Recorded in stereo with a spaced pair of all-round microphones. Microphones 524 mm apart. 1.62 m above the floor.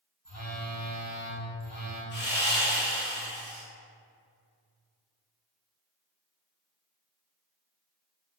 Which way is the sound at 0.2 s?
40° left (ahead or behind).